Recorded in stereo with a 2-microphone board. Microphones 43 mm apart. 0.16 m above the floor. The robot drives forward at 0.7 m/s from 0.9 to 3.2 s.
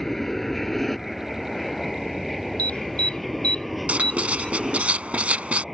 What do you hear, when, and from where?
0.0 s an aircraft: 5° left (ahead or behind); by 5.8 s 5° right (ahead or behind)
2.6 s an alarm: 30° left (ahead or behind); by 4.9 s 25° left (ahead or behind)
3.9 s writing: 35° right (ahead or behind)